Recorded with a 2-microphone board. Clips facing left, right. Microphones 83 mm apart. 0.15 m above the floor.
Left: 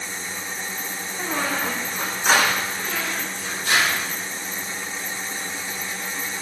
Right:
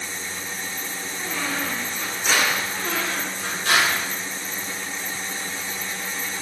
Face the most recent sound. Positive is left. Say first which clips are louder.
# right 1 dB
turn(degrees=-70)  # may be behind; listen again after turning